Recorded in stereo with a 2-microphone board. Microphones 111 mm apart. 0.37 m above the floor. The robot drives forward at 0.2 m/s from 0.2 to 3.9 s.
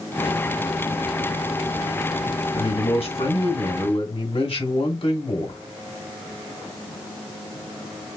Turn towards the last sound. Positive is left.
turn(degrees=55)  # may be behind; listen again after turning